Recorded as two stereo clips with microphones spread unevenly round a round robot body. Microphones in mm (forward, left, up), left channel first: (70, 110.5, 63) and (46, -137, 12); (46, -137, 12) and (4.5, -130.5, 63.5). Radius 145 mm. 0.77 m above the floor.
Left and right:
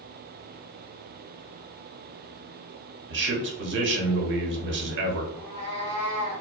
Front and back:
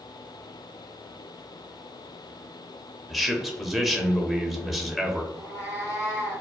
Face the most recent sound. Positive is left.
turn(degrees=140)